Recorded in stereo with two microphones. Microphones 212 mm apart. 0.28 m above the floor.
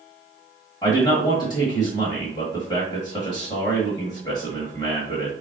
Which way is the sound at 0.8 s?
20° left (ahead or behind).